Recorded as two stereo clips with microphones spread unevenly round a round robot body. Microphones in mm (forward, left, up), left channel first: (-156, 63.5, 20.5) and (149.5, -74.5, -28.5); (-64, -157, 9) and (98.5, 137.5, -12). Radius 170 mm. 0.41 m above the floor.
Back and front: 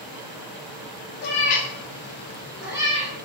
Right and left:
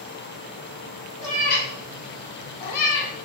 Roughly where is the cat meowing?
Behind.